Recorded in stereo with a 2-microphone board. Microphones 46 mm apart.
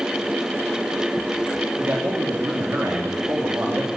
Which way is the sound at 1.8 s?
50° right (ahead or behind).